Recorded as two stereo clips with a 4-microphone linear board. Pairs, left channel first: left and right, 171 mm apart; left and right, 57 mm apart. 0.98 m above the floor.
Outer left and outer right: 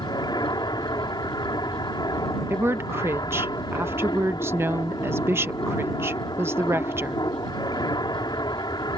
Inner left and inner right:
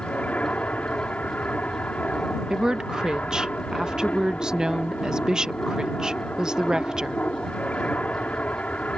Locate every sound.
0.0 s an aircraft: 25° left (ahead or behind)
2.5 s a woman speaking: 15° right (ahead or behind)